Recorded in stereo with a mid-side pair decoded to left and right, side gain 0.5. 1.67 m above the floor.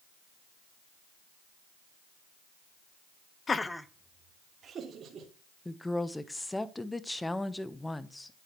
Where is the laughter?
35° left, 0.8 m; by 5.3 s 55° right, 2.5 m.